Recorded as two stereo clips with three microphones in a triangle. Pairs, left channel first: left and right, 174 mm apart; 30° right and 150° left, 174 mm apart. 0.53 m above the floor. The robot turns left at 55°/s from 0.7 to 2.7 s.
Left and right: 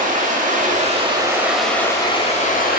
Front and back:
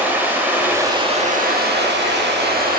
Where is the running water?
130° right, 0.8 m; by 2.8 s 120° left, 0.8 m.